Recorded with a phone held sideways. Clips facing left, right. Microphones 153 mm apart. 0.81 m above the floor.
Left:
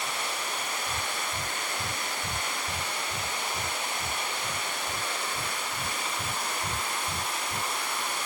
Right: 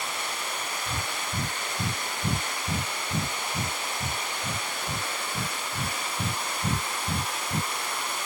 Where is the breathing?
85° right.